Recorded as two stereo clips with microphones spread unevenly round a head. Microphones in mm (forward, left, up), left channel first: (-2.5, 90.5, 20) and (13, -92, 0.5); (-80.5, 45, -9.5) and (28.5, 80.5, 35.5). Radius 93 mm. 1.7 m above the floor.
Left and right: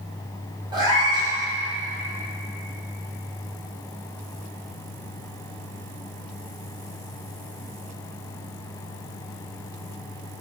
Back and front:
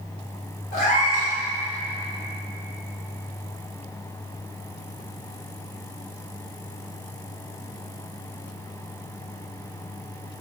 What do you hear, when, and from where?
0.7 s a cat meowing: 155° right, 1.9 m